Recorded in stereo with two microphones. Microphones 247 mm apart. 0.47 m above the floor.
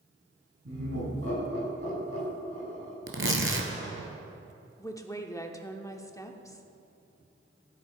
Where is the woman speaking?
15° left (ahead or behind), 0.7 m.